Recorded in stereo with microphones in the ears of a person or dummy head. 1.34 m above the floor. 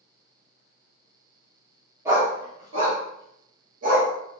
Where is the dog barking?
15° right (ahead or behind), 1.4 m; by 4.1 s 50° right (ahead or behind), 2 m.